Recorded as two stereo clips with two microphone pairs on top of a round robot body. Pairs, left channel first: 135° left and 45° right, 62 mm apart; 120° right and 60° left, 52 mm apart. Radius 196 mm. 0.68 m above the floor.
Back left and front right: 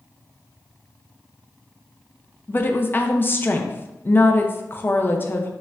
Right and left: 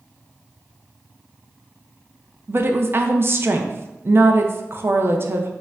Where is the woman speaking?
90° left, 1.3 m.